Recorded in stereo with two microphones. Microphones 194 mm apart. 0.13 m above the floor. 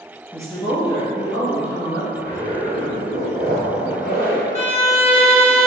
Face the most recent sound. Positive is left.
turn(degrees=35)  # may be behind; listen again after turning